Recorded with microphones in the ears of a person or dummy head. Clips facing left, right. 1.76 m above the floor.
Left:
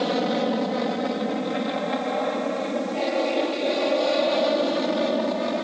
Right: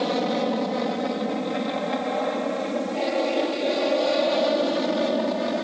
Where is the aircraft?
5° left (ahead or behind); by 5.7 s centre (ahead or behind).